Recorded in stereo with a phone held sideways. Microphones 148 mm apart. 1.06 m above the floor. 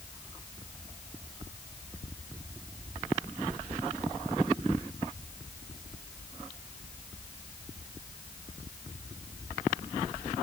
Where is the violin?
I don't hear a violin.